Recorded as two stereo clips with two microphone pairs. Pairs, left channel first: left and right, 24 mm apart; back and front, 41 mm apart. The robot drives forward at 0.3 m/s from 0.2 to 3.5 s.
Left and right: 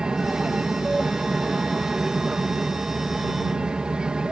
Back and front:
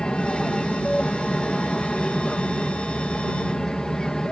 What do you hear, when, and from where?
0.0 s an aircraft: 115° right; by 4.3 s 110° right